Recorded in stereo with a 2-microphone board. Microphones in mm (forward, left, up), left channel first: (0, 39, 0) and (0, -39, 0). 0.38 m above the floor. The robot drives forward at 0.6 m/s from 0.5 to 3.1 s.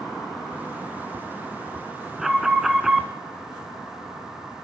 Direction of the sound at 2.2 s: 5° right (ahead or behind).